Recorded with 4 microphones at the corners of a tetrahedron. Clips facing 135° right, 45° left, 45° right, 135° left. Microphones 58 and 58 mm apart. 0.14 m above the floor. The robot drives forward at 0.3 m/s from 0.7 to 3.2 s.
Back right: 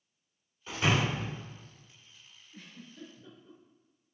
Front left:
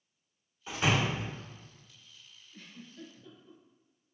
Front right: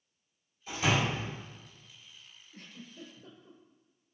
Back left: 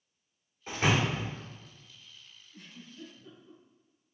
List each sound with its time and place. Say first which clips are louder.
0.7 s a door slam: even, back left 1 dB; 115° left, 1.5 m; by 1.3 s 125° left, 1.5 m
2.5 s a giggle: even, even; 60° right, 1.1 m; by 3.6 s 70° right, 1.1 m